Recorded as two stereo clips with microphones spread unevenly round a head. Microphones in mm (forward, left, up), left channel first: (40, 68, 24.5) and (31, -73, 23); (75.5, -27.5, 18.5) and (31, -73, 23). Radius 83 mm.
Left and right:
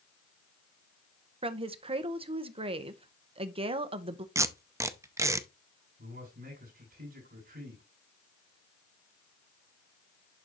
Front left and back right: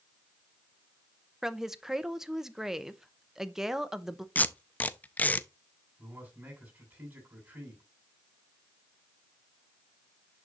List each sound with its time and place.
1.4 s a woman speaking: 50° right, 0.8 m
4.3 s tape being pulled: 20° right, 0.6 m
6.0 s a man speaking: 70° right, 6.5 m